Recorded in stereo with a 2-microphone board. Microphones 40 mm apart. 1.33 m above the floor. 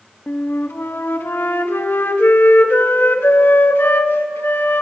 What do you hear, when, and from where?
0.3 s a flute: 60° left (ahead or behind), 1.8 m